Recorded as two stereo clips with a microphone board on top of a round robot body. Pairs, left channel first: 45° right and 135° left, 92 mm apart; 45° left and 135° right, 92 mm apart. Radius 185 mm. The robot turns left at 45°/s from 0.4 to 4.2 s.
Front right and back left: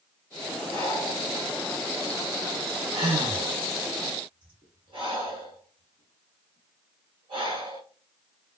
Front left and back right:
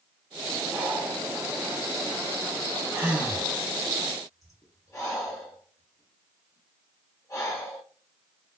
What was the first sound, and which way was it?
Breathing, 105° right.